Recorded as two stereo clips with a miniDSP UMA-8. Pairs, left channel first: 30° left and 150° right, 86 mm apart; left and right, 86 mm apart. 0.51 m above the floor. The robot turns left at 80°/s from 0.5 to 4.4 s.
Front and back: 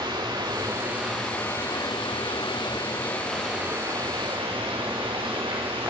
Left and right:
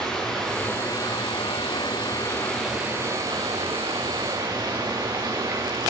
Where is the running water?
170° left, 7 m; by 5.9 s 140° right, 7 m.